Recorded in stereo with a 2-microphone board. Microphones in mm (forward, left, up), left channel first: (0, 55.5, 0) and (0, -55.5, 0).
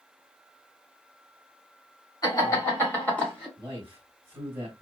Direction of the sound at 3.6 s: 20° right (ahead or behind).